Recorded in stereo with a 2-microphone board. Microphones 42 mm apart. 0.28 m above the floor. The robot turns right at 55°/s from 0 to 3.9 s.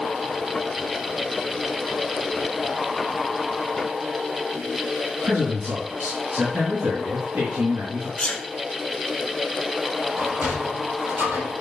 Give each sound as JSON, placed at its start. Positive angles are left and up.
{"t": 5.2, "sound": "a man speaking", "side_deg": -65, "distance_m": 4.0}
{"t": 8.2, "sound": "a sneeze", "side_deg": 25, "distance_m": 1.5}
{"t": 10.2, "sound": "a sliding door", "side_deg": -60, "distance_m": 4.0}